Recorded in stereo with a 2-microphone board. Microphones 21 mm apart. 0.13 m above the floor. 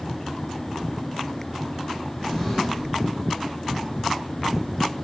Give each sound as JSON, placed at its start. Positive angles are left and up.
{"t": 2.2, "sound": "a drawer", "side_deg": 10, "distance_m": 3.0}